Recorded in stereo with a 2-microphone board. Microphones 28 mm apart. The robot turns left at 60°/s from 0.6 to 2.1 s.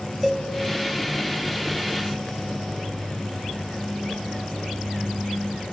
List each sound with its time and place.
0.2 s a cowbell: 10° right (ahead or behind), 0.9 m